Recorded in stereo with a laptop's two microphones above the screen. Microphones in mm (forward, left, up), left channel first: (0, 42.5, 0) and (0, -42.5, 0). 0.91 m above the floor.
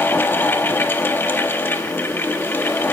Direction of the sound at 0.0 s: 25° left (ahead or behind).